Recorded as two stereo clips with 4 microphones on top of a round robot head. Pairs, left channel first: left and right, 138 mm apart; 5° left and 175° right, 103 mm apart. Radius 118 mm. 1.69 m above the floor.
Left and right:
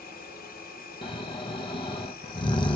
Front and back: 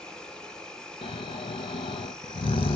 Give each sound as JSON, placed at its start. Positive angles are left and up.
{"t": 0.0, "sound": "an insect", "azimuth_deg": 90, "distance_m": 1.2}
{"t": 1.0, "sound": "snoring", "azimuth_deg": 35, "distance_m": 0.8}